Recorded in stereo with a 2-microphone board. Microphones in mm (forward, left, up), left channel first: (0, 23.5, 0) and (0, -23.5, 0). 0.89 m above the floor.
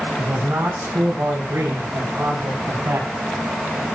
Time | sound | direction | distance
0.2 | a man speaking | 75° right (ahead or behind) | 8 m